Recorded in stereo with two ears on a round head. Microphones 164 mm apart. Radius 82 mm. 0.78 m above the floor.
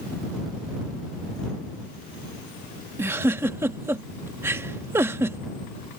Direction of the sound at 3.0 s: 15° right (ahead or behind).